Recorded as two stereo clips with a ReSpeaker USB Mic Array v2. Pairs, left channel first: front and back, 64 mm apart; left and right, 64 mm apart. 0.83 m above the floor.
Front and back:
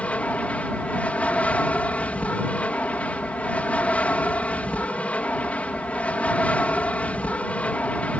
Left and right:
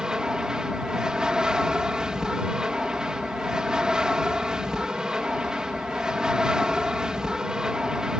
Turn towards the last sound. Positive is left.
turn(degrees=-30)